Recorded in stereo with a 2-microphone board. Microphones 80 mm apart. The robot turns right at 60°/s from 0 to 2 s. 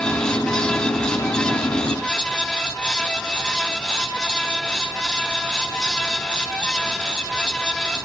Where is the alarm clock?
No alarm clock in this recording.